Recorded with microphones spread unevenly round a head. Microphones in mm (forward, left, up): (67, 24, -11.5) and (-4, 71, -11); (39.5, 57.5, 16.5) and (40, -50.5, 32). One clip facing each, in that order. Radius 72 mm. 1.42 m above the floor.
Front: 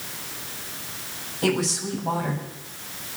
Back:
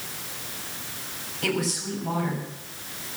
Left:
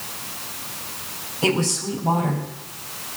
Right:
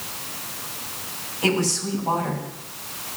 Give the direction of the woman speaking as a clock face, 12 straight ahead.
11 o'clock.